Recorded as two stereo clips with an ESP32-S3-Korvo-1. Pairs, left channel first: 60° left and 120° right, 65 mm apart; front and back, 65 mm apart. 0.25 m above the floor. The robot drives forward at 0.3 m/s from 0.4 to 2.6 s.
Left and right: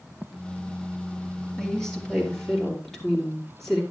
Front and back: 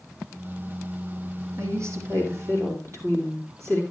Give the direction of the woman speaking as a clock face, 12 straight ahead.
7 o'clock.